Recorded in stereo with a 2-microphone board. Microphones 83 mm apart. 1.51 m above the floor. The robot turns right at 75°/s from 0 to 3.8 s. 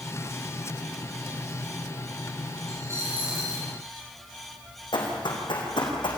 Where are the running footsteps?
70° left (ahead or behind), 4.5 m; by 6.1 s 75° left (ahead or behind), 5 m.